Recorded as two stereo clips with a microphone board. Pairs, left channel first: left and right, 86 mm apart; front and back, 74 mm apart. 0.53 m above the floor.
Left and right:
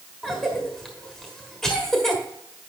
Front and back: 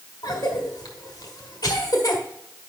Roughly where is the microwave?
I don't hear a microwave.